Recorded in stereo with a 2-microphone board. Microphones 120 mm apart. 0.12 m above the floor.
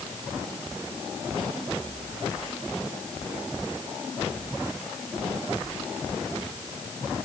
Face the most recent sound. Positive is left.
No sound to turn to.